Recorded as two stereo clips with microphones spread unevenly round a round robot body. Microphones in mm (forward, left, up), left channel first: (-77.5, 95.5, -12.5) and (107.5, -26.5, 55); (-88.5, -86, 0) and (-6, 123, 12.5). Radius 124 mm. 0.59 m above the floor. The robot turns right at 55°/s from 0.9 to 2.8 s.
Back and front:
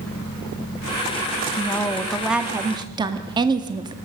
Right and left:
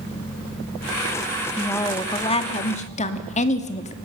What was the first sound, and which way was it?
A woman speaking, 175° left.